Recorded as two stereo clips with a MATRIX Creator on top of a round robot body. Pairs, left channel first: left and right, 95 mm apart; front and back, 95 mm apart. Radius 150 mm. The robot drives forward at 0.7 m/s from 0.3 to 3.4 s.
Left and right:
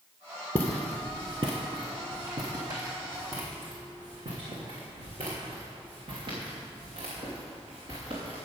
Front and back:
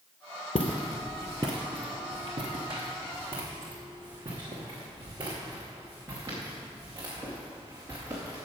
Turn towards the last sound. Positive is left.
turn(degrees=-115)